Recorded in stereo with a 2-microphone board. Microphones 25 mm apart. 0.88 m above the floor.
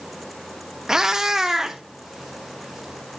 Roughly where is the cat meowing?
Right.